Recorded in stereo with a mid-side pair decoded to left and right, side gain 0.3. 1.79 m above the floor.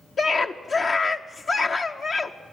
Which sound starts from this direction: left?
A scream, at 0.2 s.